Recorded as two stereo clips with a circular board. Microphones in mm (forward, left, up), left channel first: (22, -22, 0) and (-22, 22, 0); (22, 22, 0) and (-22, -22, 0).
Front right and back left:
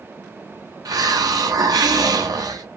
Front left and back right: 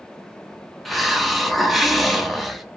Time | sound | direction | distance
0.8 | a hiss | 135° left | 0.6 m